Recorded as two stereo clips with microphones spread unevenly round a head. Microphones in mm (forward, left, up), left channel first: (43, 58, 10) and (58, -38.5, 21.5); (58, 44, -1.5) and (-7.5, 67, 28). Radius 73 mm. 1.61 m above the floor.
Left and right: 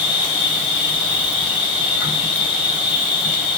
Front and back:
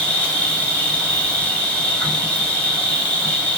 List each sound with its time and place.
0.0 s an insect: 65° left, 1.8 m